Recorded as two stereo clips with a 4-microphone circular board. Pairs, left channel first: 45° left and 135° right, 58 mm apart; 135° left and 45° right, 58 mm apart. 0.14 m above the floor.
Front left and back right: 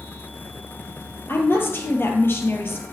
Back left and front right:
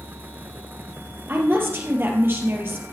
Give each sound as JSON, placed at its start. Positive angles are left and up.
{"t": 1.3, "sound": "a woman speaking", "azimuth_deg": 0, "distance_m": 3.0}